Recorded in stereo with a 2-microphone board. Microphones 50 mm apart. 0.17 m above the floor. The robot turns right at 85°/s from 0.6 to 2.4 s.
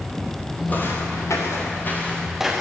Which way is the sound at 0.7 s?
35° left (ahead or behind).